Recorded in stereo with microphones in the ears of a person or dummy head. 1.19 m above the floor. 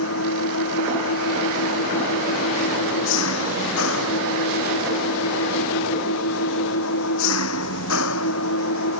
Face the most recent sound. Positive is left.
turn(degrees=85)